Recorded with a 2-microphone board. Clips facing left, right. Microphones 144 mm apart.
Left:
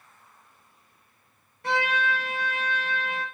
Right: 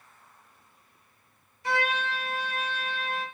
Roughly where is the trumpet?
Left.